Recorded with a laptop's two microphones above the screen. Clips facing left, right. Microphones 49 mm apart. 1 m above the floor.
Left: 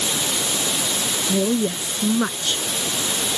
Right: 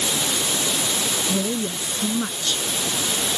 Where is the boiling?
No boiling in this recording.